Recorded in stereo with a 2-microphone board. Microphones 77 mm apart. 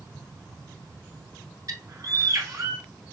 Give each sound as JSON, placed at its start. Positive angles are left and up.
{"t": 1.7, "sound": "a bird", "side_deg": -55, "distance_m": 0.7}